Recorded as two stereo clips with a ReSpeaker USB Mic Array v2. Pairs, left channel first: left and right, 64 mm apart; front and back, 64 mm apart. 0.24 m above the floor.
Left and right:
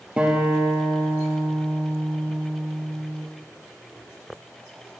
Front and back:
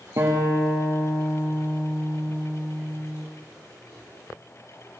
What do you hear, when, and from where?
0.2 s a guitar: 160° right, 4 m